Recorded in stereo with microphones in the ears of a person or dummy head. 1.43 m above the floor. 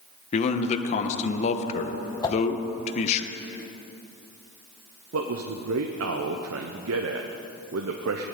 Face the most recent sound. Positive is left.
turn(degrees=-65)  # may be behind; listen again after turning